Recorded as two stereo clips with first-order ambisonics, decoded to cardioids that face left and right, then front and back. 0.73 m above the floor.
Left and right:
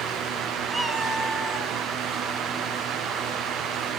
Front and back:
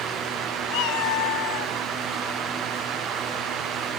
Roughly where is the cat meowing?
Ahead.